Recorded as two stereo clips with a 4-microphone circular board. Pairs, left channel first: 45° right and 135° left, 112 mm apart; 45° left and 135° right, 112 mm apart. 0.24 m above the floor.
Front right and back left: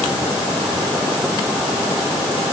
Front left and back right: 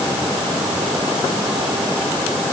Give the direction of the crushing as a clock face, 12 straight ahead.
I don't hear crushing.